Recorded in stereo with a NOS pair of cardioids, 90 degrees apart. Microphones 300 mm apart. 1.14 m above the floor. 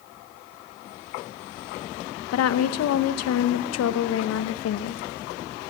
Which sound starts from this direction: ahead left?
A woman speaking, at 2.3 s.